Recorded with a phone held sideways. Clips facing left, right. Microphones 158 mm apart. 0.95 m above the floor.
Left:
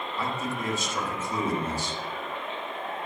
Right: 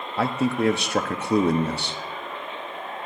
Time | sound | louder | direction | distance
0.2 | a man speaking | right 11 dB | 75° right (ahead or behind) | 1.3 m